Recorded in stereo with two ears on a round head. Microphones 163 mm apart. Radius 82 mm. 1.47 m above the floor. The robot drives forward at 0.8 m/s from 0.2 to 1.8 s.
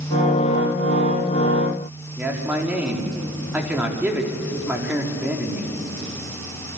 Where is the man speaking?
10° right (ahead or behind), 4.5 m.